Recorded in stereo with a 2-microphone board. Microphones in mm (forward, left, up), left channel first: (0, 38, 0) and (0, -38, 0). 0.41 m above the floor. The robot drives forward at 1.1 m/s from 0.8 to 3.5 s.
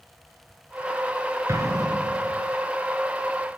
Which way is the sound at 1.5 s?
45° right (ahead or behind).